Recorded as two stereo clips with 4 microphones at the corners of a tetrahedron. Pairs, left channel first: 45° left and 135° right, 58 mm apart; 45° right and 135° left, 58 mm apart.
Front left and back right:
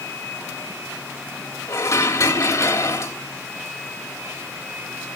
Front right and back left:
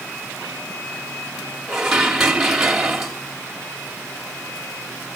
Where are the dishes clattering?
50° left, 2.5 m.